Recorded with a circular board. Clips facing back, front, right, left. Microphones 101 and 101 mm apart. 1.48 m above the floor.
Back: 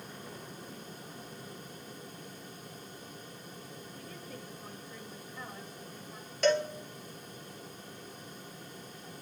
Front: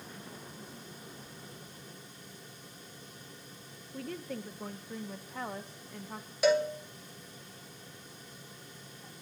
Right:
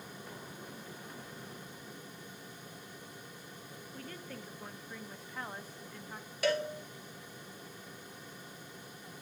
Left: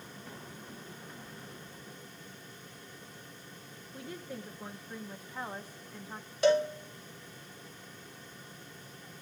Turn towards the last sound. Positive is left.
turn(degrees=70)